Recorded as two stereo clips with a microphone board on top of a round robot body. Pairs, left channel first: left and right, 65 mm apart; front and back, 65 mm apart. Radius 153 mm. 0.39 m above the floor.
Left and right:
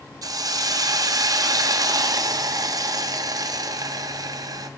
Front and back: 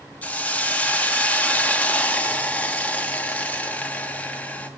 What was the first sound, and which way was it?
A hiss, 70° right.